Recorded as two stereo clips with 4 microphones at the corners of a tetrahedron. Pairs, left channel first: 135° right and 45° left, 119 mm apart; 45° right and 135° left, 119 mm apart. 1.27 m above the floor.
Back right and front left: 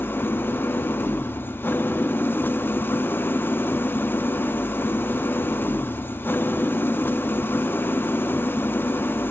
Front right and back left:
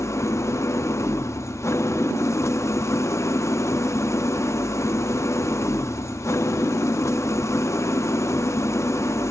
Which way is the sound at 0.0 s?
85° right.